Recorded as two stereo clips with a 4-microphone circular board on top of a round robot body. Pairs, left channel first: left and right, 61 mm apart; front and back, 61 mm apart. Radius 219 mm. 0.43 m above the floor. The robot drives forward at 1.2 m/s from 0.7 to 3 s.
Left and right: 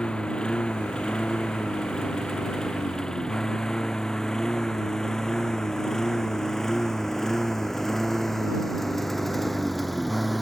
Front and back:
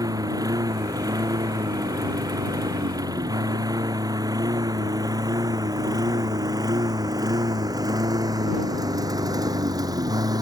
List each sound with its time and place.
0.0 s a lawn mower: 165° left; by 10.4 s straight behind